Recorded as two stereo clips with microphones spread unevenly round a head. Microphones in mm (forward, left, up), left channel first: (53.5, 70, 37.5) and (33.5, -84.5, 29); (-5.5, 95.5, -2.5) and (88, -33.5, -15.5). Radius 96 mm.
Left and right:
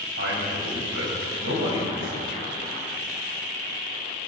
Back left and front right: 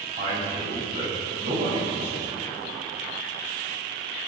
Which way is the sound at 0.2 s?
120° right.